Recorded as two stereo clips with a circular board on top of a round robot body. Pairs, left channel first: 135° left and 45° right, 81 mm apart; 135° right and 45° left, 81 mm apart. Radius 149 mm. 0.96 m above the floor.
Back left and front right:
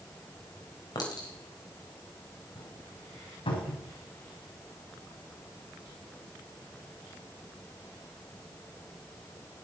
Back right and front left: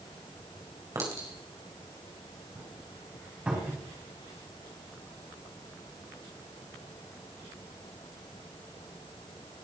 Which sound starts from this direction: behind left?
A cupboard door, at 3.5 s.